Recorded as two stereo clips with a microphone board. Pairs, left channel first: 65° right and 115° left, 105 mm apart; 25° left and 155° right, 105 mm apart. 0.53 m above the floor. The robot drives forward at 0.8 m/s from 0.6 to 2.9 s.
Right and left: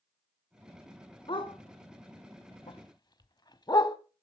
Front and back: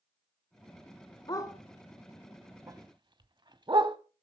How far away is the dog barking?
About 1.2 m.